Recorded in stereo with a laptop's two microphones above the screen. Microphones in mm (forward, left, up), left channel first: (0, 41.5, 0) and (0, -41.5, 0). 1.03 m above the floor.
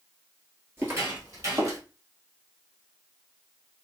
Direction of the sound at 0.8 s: 30° right (ahead or behind).